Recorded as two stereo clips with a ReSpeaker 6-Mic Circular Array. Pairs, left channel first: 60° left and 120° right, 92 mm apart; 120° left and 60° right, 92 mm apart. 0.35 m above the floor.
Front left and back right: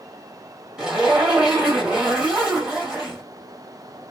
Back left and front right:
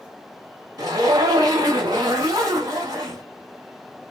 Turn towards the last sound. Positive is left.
turn(degrees=-40)